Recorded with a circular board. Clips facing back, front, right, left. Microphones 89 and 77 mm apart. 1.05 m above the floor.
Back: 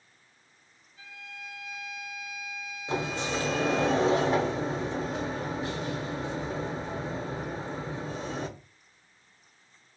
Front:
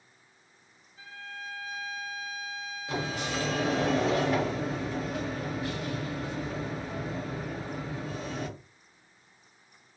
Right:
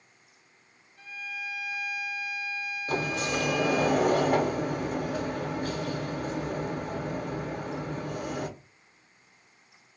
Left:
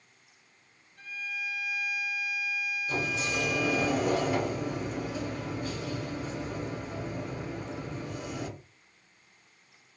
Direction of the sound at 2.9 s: 120° right.